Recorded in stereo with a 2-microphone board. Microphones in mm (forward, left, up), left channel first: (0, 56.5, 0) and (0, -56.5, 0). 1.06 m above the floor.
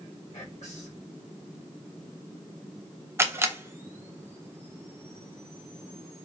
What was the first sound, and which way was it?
Whispering, 80° left.